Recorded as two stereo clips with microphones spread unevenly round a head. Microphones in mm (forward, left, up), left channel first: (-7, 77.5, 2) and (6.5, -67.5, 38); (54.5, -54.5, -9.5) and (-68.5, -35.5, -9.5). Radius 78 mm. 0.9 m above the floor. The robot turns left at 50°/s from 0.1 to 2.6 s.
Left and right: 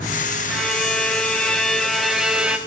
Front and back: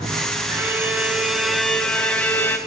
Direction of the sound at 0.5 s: 130° left.